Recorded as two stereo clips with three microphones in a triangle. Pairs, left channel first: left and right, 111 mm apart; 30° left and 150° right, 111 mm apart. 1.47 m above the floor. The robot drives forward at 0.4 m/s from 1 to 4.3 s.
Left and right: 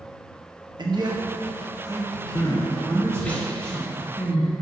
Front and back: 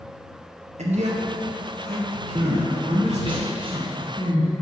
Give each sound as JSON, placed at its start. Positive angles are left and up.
{"t": 0.8, "sound": "a man speaking", "azimuth_deg": -140, "distance_m": 1.1}
{"t": 2.4, "sound": "crying", "azimuth_deg": 160, "distance_m": 0.6}